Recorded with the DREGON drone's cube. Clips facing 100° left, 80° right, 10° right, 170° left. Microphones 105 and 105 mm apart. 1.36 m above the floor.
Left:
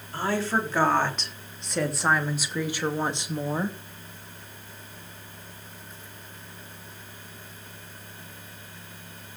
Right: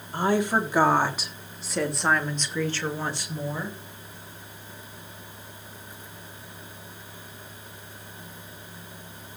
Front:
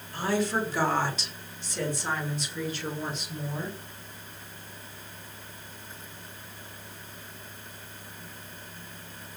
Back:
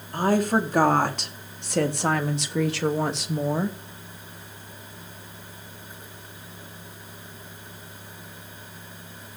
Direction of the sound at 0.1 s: 150° right.